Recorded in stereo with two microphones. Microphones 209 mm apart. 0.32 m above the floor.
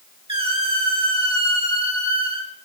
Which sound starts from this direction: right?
A squeak, at 0.3 s.